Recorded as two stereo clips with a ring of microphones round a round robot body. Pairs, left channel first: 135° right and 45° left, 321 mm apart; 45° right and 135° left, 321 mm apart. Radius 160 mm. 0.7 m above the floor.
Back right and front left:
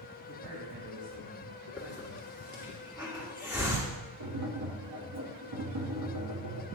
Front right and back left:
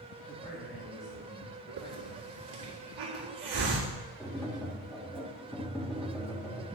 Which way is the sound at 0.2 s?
30° left.